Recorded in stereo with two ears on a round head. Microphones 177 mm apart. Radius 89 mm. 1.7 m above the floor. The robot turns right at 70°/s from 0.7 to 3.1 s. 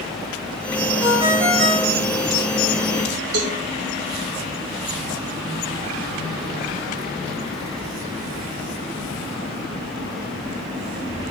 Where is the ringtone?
165° right, 4 m; by 2.0 s 95° right, 4 m.